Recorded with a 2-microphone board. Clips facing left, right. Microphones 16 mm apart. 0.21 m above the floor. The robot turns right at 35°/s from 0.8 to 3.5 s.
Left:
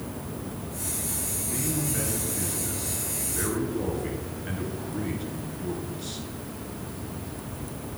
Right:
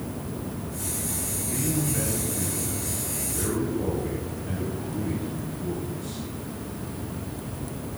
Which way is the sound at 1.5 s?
5° right.